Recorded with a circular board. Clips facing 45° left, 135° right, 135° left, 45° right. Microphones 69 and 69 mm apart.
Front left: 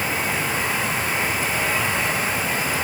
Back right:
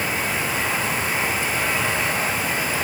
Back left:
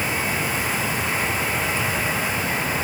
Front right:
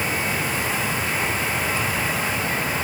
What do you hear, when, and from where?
Only background noise.